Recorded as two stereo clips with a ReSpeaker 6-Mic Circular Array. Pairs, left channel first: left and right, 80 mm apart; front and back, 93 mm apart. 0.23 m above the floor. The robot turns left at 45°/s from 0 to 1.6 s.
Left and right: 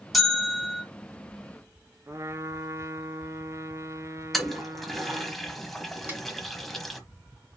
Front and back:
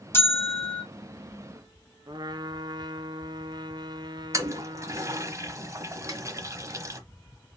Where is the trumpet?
140° right, 0.6 m.